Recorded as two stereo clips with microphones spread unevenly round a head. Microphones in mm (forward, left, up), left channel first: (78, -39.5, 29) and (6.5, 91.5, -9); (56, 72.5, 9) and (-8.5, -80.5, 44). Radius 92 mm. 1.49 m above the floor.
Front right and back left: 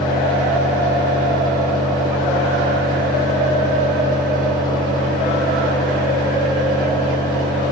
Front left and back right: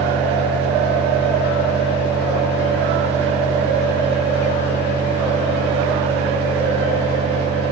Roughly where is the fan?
Right.